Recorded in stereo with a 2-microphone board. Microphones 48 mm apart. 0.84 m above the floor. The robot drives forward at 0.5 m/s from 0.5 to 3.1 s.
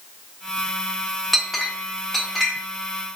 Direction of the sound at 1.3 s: Centre (ahead or behind).